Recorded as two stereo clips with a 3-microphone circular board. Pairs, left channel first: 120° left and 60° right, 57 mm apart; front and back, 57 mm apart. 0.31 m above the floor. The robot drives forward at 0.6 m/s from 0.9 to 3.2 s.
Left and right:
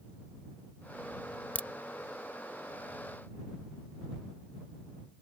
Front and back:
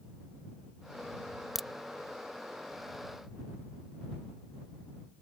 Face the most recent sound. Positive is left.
turn(degrees=165)